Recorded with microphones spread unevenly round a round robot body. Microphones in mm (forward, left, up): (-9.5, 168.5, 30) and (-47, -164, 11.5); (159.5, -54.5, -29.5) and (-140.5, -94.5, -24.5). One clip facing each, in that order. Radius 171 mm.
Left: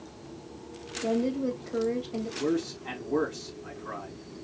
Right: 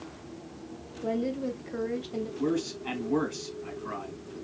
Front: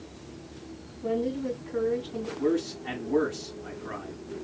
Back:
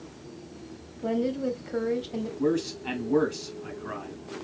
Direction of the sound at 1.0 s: 175° right.